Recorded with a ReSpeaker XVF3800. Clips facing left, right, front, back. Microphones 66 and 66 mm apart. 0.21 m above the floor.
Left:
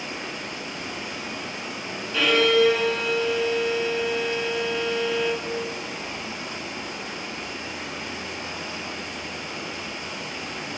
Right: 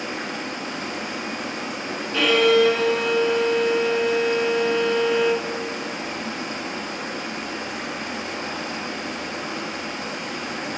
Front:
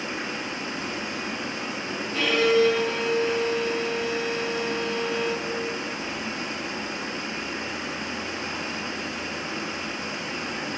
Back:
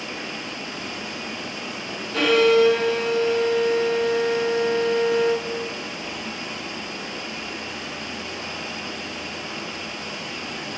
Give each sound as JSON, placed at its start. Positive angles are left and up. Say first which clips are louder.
{"t": 0.0, "sound": "running water", "louder": "right 4 dB, front 1 dB", "azimuth_deg": -65, "distance_m": 1.1}
{"t": 2.1, "sound": "a violin", "louder": "right 2 dB, back 4 dB", "azimuth_deg": 180, "distance_m": 1.4}